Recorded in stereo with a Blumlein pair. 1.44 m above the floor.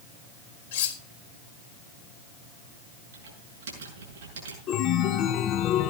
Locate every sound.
0.7 s cutlery clinking: 50° left, 1.6 m
3.1 s typing on a keyboard: 60° right, 7 m
4.7 s a chime: 35° left, 0.9 m